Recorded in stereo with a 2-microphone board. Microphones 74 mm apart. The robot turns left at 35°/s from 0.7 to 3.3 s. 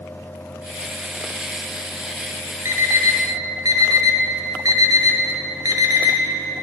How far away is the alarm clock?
About 0.9 m.